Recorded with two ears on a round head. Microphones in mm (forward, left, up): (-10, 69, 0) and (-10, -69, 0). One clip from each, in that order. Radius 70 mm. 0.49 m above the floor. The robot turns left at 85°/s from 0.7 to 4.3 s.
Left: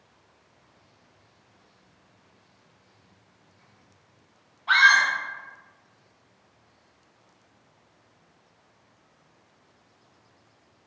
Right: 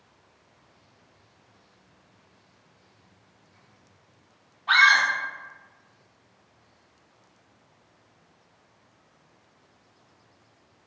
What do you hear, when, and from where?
4.7 s a scream: 15° left (ahead or behind), 0.9 m